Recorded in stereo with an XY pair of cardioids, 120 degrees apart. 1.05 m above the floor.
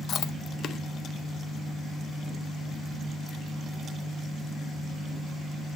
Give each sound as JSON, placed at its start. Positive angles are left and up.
{"t": 0.1, "sound": "chewing", "azimuth_deg": 50, "distance_m": 0.6}